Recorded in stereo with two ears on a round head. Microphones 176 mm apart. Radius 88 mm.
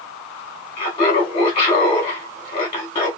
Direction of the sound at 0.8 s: 25° left (ahead or behind).